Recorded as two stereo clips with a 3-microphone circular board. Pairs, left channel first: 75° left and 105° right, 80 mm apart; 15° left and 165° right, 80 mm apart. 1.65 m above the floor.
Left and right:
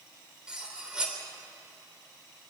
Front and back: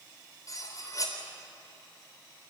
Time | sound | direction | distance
0.5 | cutlery clinking | 25° right | 3.5 m